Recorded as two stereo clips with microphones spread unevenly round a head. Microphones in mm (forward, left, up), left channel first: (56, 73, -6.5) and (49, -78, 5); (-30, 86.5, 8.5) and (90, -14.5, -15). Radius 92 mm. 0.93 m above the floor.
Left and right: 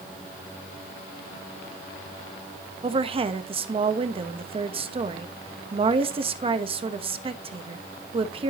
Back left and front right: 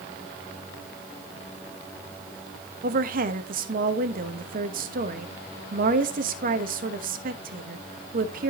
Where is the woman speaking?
40° right, 1.2 m.